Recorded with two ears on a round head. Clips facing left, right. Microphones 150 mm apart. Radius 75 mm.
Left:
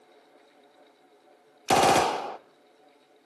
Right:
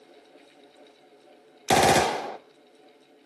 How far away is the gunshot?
About 0.7 m.